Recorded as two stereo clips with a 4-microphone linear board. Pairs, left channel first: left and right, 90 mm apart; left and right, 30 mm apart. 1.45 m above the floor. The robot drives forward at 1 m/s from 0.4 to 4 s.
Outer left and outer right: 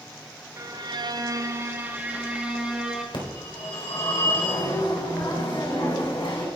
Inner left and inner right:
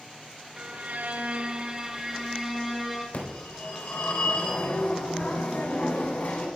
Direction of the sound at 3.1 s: 75° left (ahead or behind).